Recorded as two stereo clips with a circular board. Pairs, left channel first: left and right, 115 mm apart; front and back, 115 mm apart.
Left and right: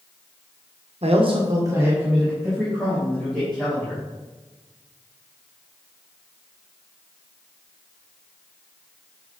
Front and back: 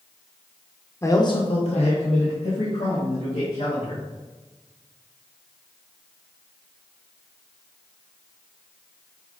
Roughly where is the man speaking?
Ahead right.